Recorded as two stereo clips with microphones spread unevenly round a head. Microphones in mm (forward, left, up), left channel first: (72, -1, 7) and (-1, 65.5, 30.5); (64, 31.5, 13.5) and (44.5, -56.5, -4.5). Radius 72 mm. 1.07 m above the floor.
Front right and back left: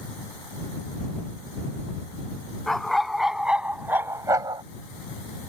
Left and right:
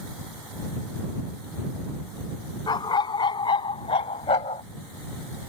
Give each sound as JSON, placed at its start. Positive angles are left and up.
{"t": 2.7, "sound": "a dog barking", "azimuth_deg": 50}